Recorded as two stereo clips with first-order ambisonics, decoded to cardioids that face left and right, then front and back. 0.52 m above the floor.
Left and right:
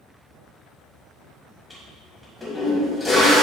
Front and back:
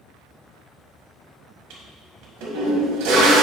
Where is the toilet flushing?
Straight behind, 2 m.